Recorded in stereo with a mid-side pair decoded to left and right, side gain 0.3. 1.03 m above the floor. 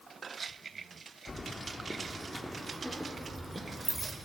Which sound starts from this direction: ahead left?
Keys jangling, at 1.3 s.